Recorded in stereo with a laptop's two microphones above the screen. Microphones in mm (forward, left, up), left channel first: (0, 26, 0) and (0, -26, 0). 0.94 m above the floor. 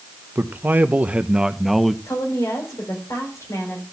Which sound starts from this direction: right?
A man speaking, at 0.3 s.